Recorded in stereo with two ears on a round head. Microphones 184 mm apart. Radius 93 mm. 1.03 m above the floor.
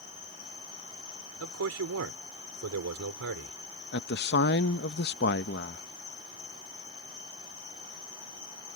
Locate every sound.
0.0 s an insect: 70° left (ahead or behind)
1.4 s a man speaking: 80° right
3.9 s a man speaking: 55° left (ahead or behind)